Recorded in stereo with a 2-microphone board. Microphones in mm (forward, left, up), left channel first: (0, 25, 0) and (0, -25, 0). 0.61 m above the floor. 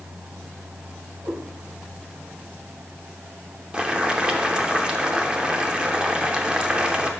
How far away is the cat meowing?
About 4 m.